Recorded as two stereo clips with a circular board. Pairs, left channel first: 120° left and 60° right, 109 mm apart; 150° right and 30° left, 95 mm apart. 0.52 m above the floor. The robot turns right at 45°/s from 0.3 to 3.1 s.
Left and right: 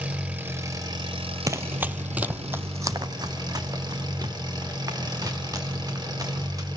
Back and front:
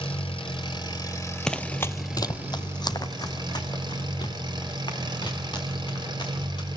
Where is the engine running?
135° right, 2.5 m; by 6.8 s 10° right, 2.5 m.